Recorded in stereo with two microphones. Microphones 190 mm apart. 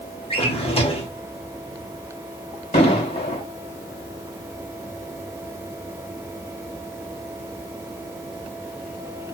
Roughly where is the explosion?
Left.